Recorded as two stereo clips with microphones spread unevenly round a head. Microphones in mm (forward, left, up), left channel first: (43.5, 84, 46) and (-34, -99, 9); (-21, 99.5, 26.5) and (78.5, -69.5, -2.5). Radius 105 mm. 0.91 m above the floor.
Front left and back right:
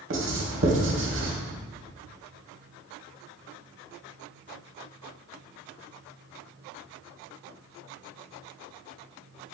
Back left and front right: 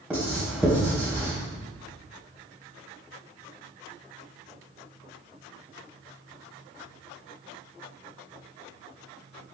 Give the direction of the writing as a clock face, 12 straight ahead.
5 o'clock.